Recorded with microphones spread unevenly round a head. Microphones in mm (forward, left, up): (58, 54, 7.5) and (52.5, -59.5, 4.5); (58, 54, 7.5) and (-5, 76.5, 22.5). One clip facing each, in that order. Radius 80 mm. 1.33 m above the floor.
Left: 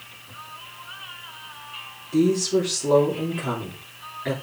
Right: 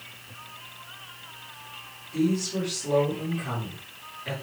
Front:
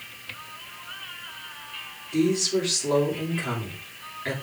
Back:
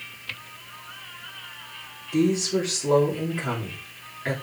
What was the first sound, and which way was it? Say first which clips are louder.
A woman speaking: left 6 dB, back 1 dB; 90° left.